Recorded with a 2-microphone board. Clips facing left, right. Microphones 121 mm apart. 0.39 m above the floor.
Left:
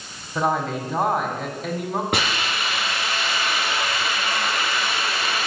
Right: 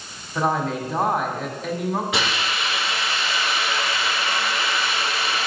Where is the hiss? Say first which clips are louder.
Even; 55° left (ahead or behind), 3.5 m.